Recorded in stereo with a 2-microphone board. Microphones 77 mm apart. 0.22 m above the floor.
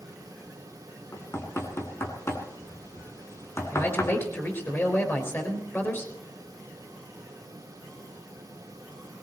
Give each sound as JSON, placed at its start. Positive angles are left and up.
{"t": 1.1, "sound": "knocking", "side_deg": 35, "distance_m": 2.5}
{"t": 3.7, "sound": "a man speaking", "side_deg": 30, "distance_m": 4.0}